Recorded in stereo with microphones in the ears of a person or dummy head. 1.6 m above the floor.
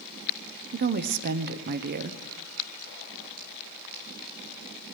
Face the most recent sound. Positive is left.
turn(degrees=-45)  # may be behind; listen again after turning